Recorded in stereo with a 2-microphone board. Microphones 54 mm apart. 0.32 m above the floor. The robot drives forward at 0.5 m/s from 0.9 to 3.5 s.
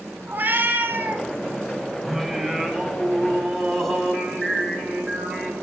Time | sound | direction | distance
0.3 | a cat meowing | 40° right (ahead or behind) | 1.1 m
2.0 | singing | 5° right (ahead or behind) | 0.5 m